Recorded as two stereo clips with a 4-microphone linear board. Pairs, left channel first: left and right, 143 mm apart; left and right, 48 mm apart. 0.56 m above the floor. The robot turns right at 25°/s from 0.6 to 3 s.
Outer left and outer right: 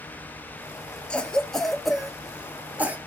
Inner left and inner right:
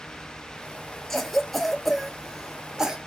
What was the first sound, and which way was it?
A cough, 5° left (ahead or behind).